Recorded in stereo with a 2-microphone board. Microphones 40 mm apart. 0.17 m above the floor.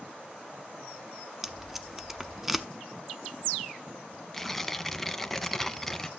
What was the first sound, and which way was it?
Tape being pulled, 10° right (ahead or behind).